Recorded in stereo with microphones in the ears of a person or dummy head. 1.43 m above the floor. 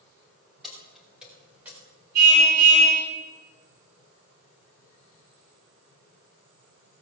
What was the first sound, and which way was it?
Keys jangling, 5° right (ahead or behind).